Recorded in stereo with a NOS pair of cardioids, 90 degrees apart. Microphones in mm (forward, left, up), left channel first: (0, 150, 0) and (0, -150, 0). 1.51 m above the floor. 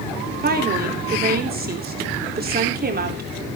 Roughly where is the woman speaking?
Ahead right.